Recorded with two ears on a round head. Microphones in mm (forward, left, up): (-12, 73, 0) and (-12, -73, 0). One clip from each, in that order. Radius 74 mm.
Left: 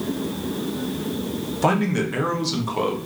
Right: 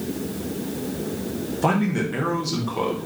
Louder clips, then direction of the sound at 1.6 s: Left 2 dB; 20° left (ahead or behind).